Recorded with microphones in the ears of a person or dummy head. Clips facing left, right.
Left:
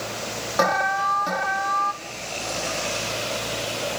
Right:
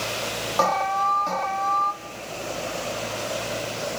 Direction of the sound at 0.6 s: 15° left (ahead or behind).